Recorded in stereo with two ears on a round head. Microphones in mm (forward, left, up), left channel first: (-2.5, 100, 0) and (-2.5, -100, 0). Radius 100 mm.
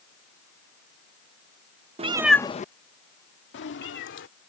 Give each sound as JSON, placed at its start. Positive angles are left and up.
{"t": 2.0, "sound": "a cat meowing", "side_deg": -30}